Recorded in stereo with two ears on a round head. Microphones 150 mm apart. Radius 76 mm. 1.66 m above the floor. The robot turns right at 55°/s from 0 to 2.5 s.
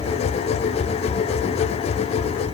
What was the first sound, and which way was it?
Only background noise.